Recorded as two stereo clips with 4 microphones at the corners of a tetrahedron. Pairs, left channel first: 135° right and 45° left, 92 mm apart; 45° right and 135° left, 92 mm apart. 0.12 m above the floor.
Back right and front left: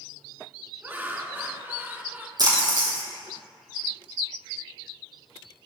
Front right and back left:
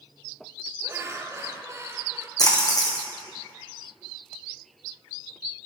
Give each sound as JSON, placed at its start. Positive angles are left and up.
{"t": 0.8, "sound": "laughter", "azimuth_deg": 100, "distance_m": 1.6}
{"t": 2.4, "sound": "a splash", "azimuth_deg": 0, "distance_m": 2.5}